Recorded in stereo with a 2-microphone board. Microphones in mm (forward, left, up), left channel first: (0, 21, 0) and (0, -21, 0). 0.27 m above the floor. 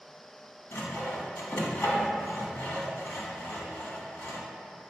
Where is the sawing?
65° left (ahead or behind), 0.6 m.